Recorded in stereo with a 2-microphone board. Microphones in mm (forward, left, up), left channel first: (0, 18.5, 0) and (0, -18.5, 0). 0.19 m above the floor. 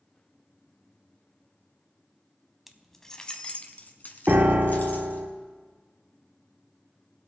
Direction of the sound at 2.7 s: 5° right (ahead or behind).